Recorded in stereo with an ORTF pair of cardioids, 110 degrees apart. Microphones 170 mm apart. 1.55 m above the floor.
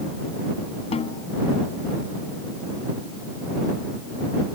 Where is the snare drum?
40° left.